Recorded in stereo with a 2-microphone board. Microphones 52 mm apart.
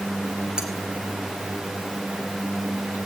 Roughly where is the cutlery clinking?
Centre.